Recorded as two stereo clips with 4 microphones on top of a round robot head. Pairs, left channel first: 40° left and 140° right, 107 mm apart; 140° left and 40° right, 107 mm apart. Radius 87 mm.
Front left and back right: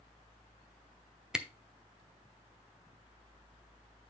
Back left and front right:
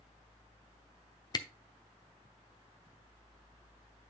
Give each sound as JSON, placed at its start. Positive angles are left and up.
{"t": 1.3, "sound": "a camera shutter", "azimuth_deg": 140, "distance_m": 1.0}